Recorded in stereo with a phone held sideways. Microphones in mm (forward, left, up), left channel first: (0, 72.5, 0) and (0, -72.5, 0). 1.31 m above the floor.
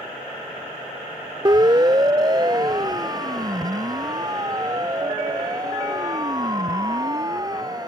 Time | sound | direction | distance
1.4 | a siren | 30° right (ahead or behind) | ?